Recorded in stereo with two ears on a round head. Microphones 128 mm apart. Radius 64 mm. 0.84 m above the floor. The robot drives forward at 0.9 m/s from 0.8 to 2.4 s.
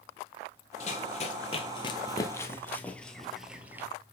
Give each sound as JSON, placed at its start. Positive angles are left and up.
{"t": 0.8, "sound": "running footsteps", "side_deg": 50, "distance_m": 1.2}